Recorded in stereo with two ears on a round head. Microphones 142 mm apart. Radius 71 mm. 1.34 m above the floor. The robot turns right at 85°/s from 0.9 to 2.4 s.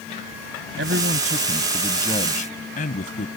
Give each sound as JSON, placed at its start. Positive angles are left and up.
{"t": 0.8, "sound": "a man speaking", "azimuth_deg": -75}